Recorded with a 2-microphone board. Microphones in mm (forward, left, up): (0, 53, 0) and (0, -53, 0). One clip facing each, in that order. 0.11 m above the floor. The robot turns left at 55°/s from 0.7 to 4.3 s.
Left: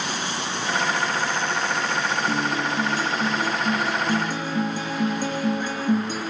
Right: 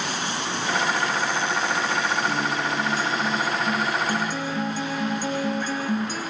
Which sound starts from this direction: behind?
A guitar, at 2.3 s.